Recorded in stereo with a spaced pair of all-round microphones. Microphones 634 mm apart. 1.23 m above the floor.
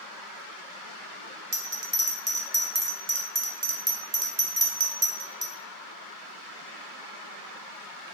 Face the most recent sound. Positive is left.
turn(degrees=-55)  # may be behind; listen again after turning